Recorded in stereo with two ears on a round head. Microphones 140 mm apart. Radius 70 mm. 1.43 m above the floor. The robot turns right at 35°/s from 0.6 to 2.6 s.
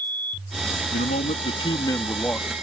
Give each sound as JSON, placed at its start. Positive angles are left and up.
{"t": 0.9, "sound": "a man speaking", "azimuth_deg": 120}